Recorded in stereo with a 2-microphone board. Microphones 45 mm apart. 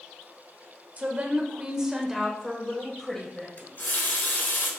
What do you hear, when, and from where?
1.0 s a woman speaking: 35° right (ahead or behind), 1.3 m; by 3.5 s 15° left (ahead or behind), 1.8 m
3.6 s a running tap: 50° left (ahead or behind), 1.0 m